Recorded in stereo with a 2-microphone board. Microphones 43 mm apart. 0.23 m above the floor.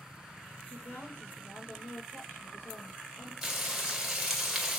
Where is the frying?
10° right (ahead or behind), 2 m.